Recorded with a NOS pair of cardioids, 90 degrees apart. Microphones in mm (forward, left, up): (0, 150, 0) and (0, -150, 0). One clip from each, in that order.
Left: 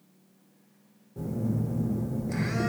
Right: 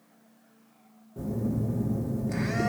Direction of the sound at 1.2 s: Straight ahead.